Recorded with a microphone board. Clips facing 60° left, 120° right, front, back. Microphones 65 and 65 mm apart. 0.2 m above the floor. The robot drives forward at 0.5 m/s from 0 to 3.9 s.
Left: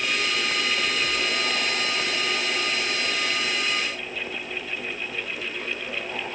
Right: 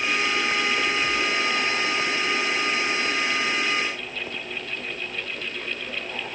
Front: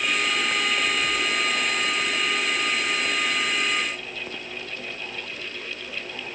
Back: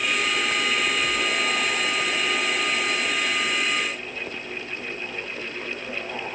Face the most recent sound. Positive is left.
No sound to turn to.